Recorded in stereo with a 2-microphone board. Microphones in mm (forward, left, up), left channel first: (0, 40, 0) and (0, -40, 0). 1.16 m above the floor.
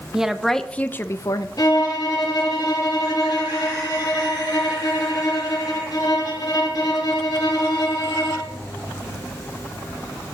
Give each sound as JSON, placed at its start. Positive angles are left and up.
{"t": 0.1, "sound": "a woman speaking", "side_deg": -10, "distance_m": 0.7}
{"t": 1.6, "sound": "a violin", "side_deg": 50, "distance_m": 2.0}